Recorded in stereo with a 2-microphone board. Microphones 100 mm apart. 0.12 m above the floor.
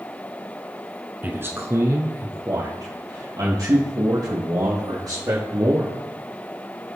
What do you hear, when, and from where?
1.2 s a man speaking: 20° right (ahead or behind), 1.2 m; by 5.9 s 40° right (ahead or behind), 6 m